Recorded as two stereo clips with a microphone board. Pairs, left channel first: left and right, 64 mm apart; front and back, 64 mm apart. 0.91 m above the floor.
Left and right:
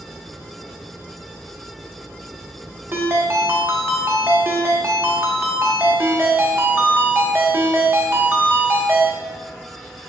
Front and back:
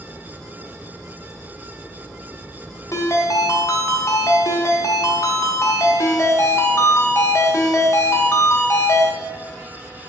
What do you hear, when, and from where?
2.9 s a ringtone: 40° right, 1.1 m